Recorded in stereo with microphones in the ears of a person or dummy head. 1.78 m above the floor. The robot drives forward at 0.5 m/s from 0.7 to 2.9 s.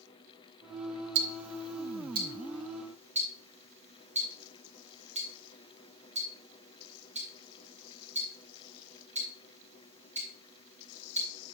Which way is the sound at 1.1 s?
75° right (ahead or behind).